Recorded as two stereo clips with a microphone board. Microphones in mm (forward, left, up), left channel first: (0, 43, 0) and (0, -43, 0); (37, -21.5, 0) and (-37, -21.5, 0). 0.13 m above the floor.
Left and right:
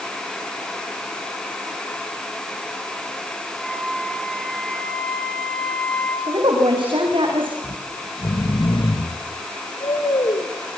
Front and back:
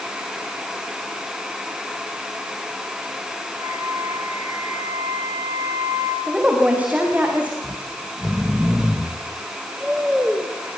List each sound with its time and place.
3.6 s a flute: 170° left, 2 m
6.3 s a woman speaking: 110° right, 9 m
7.6 s snoring: 100° left, 3 m